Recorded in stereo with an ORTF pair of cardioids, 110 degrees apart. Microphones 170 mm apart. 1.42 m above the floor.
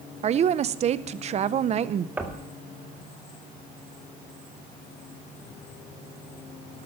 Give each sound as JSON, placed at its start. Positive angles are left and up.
{"t": 0.2, "sound": "a woman speaking", "azimuth_deg": -40, "distance_m": 0.7}
{"t": 2.2, "sound": "knocking", "azimuth_deg": -10, "distance_m": 1.9}